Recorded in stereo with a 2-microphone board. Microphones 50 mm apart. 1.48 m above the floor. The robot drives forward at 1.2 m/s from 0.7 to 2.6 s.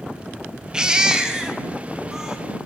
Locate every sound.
0.7 s a baby crying: 15° right (ahead or behind), 3 m; by 2.4 s 10° right (ahead or behind), 4.5 m